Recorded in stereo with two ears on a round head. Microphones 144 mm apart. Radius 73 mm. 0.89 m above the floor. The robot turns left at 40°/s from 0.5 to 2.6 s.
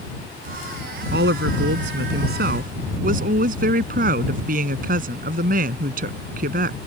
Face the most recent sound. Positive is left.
turn(degrees=-120)